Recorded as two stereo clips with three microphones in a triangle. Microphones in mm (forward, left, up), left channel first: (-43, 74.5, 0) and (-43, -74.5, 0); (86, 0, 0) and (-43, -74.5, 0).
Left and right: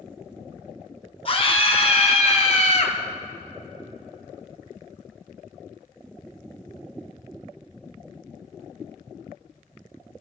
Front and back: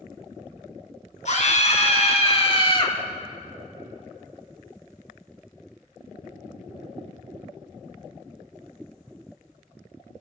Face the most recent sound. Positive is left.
turn(degrees=75)